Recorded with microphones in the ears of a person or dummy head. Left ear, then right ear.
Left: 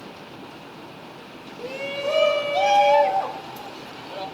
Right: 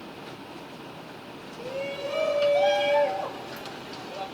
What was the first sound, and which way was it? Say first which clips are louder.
A shout: left 4 dB; 25° left (ahead or behind).